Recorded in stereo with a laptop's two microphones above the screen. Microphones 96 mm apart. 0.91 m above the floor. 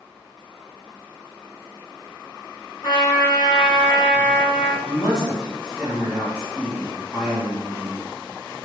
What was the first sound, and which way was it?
A trumpet, 50° left (ahead or behind).